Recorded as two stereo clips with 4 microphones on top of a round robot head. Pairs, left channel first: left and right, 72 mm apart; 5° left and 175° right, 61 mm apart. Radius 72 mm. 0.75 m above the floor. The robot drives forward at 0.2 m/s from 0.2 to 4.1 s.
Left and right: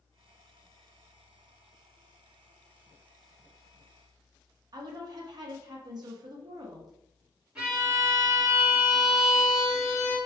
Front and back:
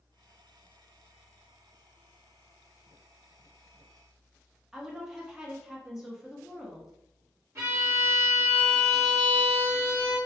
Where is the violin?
165° right, 1.7 m.